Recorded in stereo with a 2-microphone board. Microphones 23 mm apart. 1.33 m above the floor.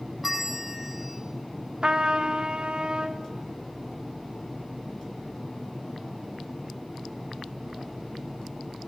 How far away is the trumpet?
About 0.9 m.